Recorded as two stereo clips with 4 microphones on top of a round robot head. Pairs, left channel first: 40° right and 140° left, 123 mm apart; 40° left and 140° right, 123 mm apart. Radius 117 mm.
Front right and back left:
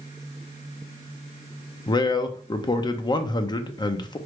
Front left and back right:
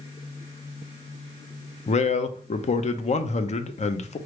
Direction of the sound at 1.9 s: 15° left.